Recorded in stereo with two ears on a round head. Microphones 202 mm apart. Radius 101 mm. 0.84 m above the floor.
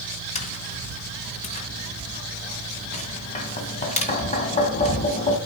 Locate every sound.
0.3 s tapping: 30° left (ahead or behind), 2 m